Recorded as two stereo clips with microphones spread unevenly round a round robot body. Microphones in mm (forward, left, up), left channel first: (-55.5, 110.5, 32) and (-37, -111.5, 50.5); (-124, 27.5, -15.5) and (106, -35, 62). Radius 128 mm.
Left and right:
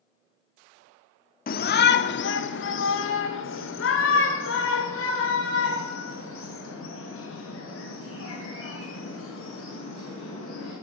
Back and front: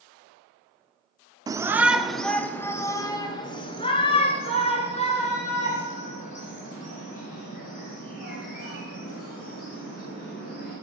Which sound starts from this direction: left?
A shout, at 1.5 s.